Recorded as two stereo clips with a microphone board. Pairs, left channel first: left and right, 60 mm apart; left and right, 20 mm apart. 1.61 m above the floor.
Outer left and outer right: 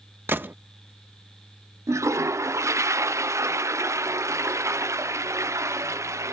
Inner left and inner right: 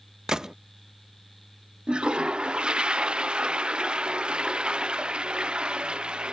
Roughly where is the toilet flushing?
Right.